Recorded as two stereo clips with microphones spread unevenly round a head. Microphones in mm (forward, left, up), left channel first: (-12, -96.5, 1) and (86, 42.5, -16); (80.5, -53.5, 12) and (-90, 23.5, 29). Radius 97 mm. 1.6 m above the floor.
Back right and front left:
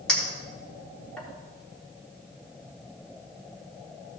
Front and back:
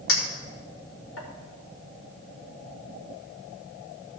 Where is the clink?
40° right, 3.5 m.